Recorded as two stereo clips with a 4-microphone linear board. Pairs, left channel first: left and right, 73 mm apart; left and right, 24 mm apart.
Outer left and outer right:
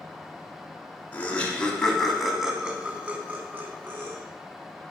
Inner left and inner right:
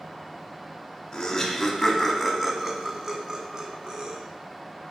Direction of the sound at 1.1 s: 25° left (ahead or behind).